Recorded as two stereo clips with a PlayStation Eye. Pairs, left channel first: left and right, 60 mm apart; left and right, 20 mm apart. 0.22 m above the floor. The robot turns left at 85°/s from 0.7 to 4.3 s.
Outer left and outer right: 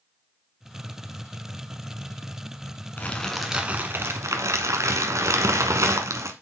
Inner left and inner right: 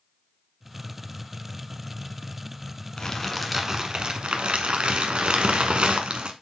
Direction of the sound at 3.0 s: 35° left.